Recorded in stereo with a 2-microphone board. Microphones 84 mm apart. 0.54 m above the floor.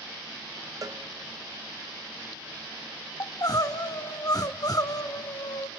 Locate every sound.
0.8 s a cowbell: 45° right (ahead or behind), 0.8 m
3.2 s crying: 50° left (ahead or behind), 0.8 m